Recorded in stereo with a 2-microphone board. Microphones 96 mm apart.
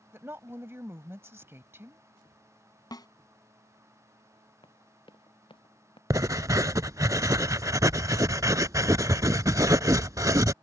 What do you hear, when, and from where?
0.1 s a woman speaking: 25° right (ahead or behind)
2.9 s a snare drum: 45° left (ahead or behind)
4.6 s running footsteps: 65° left (ahead or behind)
6.1 s writing: 35° right (ahead or behind)